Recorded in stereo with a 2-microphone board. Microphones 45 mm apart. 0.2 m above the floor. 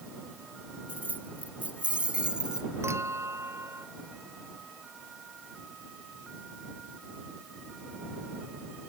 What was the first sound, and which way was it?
Keys jangling, 40° right (ahead or behind).